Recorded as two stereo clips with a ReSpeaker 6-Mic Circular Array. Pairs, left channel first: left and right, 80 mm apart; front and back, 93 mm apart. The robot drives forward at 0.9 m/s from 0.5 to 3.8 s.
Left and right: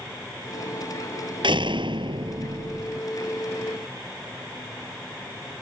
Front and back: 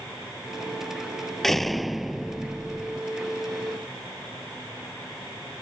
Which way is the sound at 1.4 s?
85° right.